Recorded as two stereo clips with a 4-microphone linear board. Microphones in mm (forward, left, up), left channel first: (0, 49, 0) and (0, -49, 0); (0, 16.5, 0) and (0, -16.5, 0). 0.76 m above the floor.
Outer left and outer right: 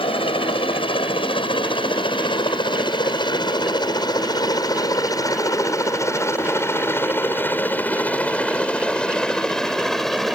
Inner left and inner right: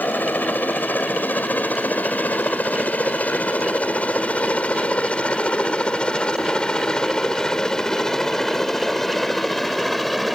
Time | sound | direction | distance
0.0 | a helicopter | 65° left (ahead or behind) | ?